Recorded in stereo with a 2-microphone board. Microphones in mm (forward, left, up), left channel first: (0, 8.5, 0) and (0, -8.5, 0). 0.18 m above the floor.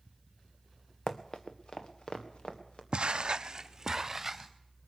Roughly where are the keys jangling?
No keys jangling in this recording.